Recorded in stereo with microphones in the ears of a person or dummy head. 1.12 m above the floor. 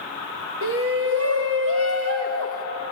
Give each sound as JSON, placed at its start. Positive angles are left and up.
{"t": 0.6, "sound": "a shout", "side_deg": -70, "distance_m": 1.3}